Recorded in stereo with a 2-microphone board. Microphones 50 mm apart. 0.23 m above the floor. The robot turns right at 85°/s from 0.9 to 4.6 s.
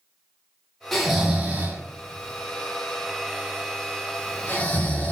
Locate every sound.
0.9 s snoring: 5° left (ahead or behind), 1.1 m; by 5.1 s 30° left (ahead or behind), 1.1 m